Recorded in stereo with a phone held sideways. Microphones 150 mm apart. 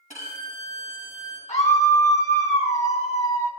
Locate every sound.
0.1 s a violin: 55° left (ahead or behind), 3 m
1.5 s a scream: 45° left (ahead or behind), 1.8 m